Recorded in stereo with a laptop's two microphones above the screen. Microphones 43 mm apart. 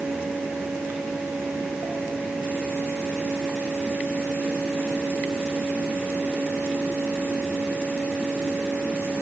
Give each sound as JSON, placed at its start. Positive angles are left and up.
{"t": 0.0, "sound": "a fan", "side_deg": -75, "distance_m": 6.0}